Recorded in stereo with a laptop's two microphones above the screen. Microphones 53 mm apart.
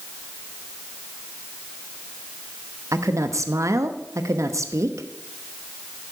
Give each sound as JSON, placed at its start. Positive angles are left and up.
{"t": 2.9, "sound": "a woman speaking", "side_deg": -80, "distance_m": 0.8}